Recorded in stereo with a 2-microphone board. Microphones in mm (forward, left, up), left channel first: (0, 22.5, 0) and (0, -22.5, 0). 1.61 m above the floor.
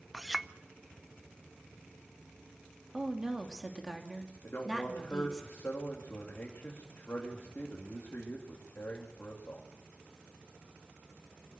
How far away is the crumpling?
I don't hear crumpling.